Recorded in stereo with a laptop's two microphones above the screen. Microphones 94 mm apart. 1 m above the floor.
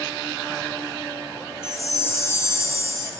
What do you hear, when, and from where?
1.6 s a chime: 30° left (ahead or behind), 2.0 m